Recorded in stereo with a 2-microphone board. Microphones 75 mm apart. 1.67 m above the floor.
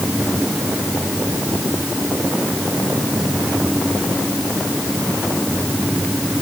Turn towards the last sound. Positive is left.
No sound to turn to.